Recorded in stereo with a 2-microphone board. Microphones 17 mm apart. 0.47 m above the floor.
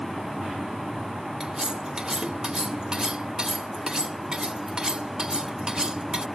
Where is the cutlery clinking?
60° right (ahead or behind).